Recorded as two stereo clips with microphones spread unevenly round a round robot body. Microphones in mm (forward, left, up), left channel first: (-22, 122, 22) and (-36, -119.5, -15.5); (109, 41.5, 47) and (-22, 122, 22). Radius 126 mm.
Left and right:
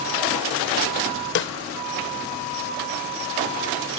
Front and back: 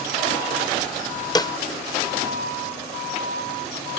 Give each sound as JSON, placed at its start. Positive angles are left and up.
{"t": 1.4, "sound": "a snare drum", "azimuth_deg": 35}